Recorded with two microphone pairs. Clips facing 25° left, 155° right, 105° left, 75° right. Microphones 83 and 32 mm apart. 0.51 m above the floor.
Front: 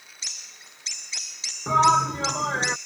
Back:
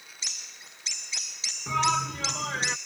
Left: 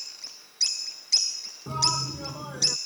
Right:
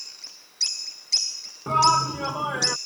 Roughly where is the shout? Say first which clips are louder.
Front 8 dB, right 9 dB; ahead right.